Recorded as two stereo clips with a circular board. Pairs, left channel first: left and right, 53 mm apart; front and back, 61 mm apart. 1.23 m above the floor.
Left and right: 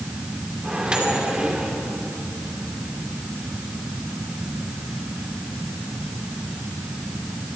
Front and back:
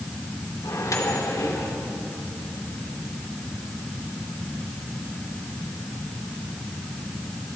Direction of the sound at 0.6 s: 20° right.